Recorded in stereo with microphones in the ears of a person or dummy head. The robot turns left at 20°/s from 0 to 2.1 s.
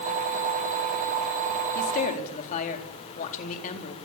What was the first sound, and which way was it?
A woman speaking, 50° left (ahead or behind).